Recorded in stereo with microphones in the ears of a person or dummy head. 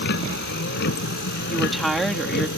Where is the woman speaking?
5° right (ahead or behind).